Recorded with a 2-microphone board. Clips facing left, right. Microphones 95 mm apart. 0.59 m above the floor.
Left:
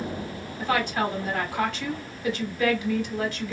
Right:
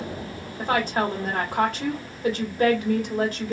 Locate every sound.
0.6 s a woman speaking: 40° right (ahead or behind), 1.3 m